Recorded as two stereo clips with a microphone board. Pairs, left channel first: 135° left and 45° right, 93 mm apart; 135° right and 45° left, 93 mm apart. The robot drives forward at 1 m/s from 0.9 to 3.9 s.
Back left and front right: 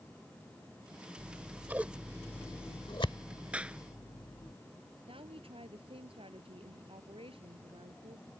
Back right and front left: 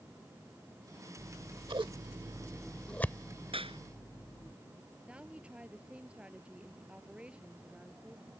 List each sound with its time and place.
1.2 s scissors: 15° left; by 4.5 s 170° left
3.5 s a clap: 30° left; by 3.8 s 35° left
5.1 s a woman speaking: 35° right